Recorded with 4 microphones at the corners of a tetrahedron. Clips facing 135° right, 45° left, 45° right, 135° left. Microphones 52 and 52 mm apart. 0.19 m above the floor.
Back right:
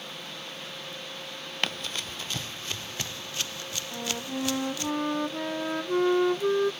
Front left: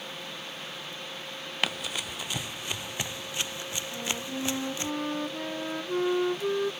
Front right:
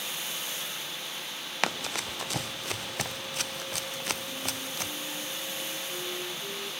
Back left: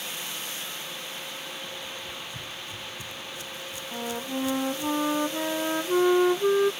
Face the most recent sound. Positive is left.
turn(degrees=155)